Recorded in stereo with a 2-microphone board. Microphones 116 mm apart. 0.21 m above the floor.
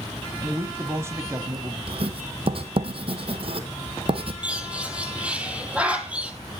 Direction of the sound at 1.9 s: 55° right (ahead or behind).